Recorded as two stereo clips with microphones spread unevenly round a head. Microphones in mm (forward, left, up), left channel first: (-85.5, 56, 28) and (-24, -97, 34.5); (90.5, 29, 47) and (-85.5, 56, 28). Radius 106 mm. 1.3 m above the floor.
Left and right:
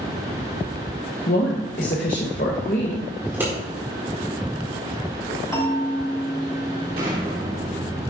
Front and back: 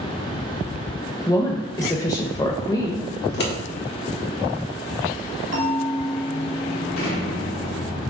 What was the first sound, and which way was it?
A woman speaking, 60° left.